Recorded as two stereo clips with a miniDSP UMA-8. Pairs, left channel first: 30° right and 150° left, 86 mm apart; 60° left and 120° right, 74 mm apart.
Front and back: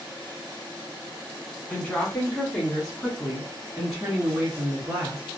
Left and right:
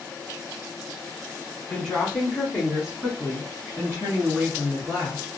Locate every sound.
1.7 s a woman speaking: 5° right, 1.3 m; by 5.2 s 155° right, 1.9 m